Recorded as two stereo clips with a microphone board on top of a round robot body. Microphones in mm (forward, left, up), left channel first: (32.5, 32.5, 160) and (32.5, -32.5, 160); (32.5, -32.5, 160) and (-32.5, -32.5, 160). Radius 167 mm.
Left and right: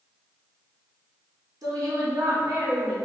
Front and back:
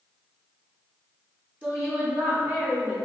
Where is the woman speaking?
110° right, 1.0 m; by 2.9 s 135° right, 1.6 m.